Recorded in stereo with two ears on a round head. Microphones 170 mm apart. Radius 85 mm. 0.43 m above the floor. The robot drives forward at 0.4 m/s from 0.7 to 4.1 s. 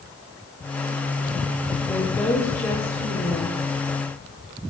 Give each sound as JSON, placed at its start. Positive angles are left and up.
{"t": 1.9, "sound": "a woman speaking", "side_deg": 15, "distance_m": 2.5}